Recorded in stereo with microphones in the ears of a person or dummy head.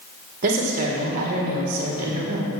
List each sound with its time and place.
0.4 s a woman speaking: 40° right (ahead or behind), 1.7 m